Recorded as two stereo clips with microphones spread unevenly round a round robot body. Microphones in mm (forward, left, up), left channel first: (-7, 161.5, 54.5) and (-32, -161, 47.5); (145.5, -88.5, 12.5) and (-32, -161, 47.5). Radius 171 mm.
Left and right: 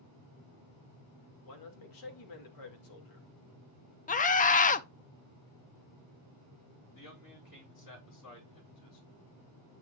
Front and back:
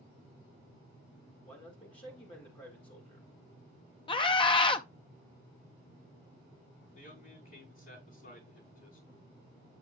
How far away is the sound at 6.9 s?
About 8.5 m.